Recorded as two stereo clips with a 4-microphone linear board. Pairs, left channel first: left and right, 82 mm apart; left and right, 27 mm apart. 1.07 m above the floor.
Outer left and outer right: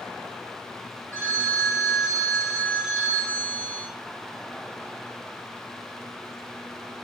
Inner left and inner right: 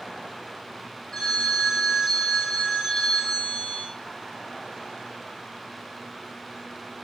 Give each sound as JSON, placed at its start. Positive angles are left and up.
{"t": 1.1, "sound": "a phone ringing", "side_deg": 15, "distance_m": 1.8}